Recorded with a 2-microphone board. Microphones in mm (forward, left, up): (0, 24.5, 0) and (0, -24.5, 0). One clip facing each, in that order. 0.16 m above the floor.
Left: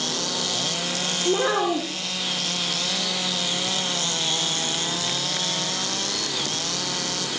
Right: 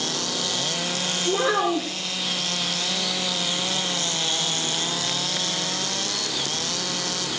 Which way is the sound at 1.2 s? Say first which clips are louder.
Even; 15° left (ahead or behind).